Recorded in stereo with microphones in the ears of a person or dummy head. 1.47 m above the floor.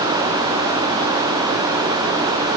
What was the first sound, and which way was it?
Only background noise.